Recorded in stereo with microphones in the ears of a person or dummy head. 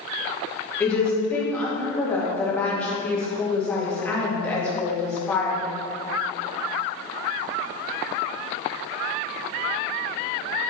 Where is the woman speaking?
15° left (ahead or behind), 1.9 m.